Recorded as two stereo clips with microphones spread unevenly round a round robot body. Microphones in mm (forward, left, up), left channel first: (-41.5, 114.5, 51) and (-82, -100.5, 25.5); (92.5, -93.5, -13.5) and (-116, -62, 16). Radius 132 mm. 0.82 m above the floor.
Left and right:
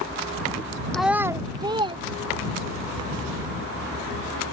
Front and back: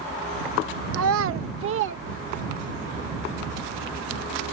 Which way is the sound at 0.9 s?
165° left.